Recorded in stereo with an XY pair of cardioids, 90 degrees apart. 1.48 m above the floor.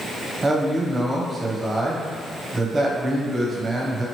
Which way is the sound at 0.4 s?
30° right.